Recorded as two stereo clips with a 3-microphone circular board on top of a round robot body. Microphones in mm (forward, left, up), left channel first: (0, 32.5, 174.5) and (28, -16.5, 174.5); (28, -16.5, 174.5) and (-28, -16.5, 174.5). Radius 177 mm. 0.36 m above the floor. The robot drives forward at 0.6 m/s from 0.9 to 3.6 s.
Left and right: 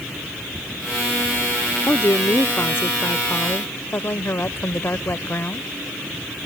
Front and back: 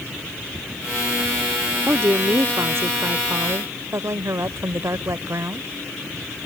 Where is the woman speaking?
150° left; by 5.7 s 160° left.